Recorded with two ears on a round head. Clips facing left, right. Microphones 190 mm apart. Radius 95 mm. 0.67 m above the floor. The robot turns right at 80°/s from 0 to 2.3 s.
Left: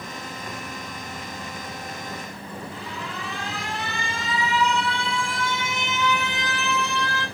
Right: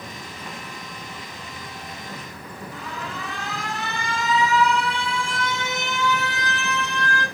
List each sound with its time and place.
2.7 s an alarm: 40° right (ahead or behind), 5 m